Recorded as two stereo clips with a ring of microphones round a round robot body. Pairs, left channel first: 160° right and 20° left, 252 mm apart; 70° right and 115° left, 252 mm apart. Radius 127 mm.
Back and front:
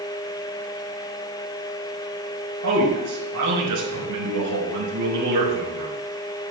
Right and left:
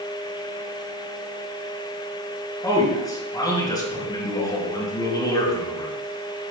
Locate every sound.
2.6 s a man speaking: 10° left, 4.5 m